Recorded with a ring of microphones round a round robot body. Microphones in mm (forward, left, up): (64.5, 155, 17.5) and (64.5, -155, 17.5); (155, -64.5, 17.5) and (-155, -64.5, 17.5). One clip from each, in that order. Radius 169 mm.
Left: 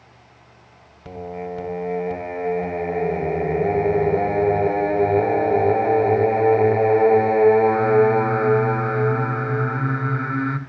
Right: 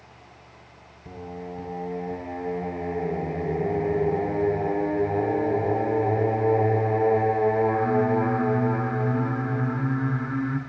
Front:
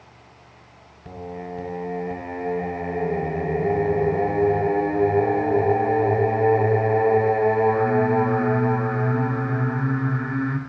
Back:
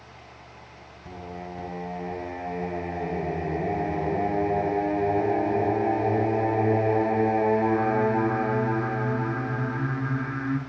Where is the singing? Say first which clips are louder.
Left 7 dB, front 4 dB; 85° left, 0.5 m.